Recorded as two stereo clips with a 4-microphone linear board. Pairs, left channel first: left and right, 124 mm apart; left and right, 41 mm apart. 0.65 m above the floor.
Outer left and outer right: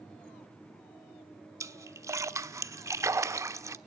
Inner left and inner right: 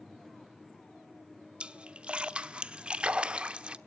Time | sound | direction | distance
1.6 | a splash | 25° right (ahead or behind) | 0.8 m